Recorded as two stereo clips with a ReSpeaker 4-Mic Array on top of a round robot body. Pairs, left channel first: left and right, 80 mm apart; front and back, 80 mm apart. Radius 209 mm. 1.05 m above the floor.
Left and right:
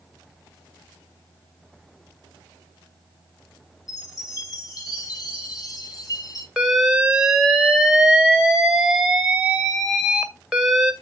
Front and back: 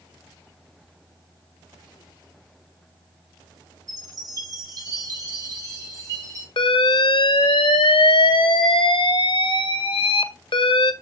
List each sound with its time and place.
3.9 s a chime: 130° left, 6.5 m
6.6 s an alarm: 5° right, 1.8 m